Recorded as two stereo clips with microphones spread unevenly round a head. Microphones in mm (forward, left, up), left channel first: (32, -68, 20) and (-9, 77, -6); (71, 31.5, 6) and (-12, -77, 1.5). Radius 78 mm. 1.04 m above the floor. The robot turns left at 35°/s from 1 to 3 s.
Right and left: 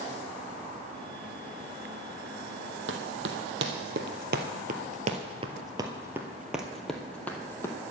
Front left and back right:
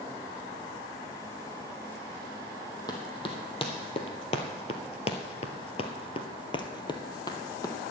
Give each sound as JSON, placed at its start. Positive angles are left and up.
{"t": 2.9, "sound": "running footsteps", "azimuth_deg": 115, "distance_m": 2.0}